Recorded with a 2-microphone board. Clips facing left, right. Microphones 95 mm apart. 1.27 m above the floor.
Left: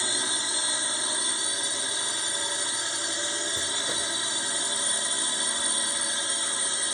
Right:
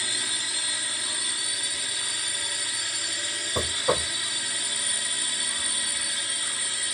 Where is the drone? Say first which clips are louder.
Left 3 dB; 25° left (ahead or behind).